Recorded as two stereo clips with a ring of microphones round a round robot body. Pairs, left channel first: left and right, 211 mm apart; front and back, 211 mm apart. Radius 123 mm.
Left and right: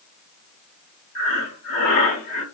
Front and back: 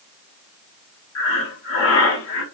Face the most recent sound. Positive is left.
turn(degrees=35)